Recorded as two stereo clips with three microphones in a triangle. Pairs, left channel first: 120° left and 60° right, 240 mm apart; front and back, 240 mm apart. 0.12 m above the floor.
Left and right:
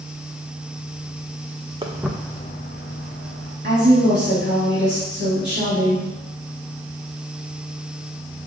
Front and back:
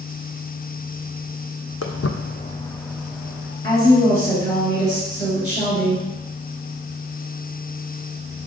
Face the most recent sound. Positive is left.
turn(degrees=-50)